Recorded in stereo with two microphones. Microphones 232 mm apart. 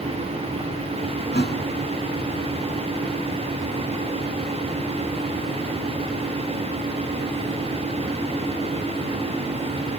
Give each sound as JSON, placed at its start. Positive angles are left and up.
{"t": 1.3, "sound": "a thud", "side_deg": 45, "distance_m": 2.5}